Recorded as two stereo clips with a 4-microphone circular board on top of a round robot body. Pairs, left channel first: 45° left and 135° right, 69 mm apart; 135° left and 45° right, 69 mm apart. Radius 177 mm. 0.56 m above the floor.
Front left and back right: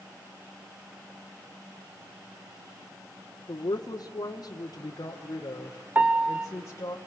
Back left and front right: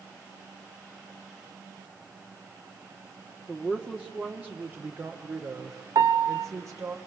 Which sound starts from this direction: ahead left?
A woman speaking, at 3.5 s.